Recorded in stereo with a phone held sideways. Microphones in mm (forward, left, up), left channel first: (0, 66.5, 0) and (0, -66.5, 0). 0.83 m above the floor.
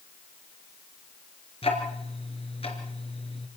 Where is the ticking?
45° left (ahead or behind), 4 m.